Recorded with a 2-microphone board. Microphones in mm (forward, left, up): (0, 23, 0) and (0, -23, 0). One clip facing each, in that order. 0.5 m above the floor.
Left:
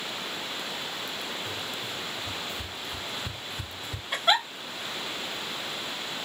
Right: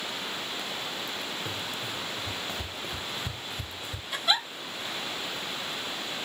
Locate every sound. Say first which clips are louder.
1.4 s running footsteps: even; 65° right (ahead or behind), 2 m; by 4.0 s 40° left (ahead or behind), 0.7 m
4.1 s a giggle: left 4 dB; 45° left (ahead or behind), 1.8 m